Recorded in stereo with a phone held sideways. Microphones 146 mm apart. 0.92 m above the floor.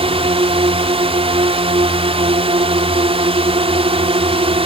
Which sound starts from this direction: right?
A drone, at 0.0 s.